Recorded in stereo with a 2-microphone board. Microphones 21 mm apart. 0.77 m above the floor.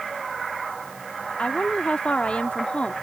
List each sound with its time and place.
1.4 s a woman speaking: 75° left (ahead or behind)